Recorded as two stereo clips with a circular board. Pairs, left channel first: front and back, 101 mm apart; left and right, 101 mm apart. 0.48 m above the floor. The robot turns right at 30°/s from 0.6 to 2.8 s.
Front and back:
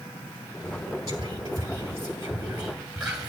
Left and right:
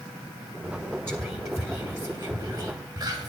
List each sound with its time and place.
1.1 s whispering: 150° right, 1.9 m; by 3.3 s 100° right, 1.9 m